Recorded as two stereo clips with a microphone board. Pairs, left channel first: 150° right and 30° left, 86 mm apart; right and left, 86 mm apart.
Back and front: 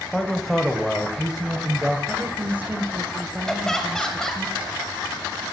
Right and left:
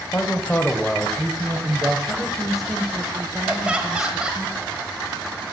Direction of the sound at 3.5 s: 140° left.